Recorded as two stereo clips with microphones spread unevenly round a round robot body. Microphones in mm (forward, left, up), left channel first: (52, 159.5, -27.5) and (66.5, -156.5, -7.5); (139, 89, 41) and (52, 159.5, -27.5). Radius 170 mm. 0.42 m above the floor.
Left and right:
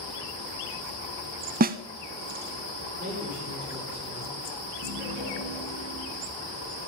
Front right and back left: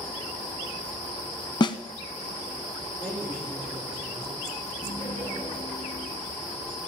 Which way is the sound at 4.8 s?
105° right.